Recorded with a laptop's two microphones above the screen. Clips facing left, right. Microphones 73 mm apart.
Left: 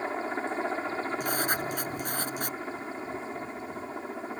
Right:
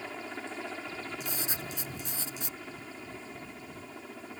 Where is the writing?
55° left (ahead or behind).